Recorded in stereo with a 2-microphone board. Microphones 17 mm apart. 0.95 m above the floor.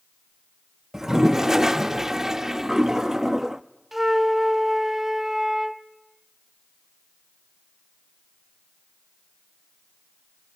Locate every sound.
0.9 s a toilet flushing: 20° right (ahead or behind), 0.6 m
3.9 s a flute: 15° right (ahead or behind), 0.8 m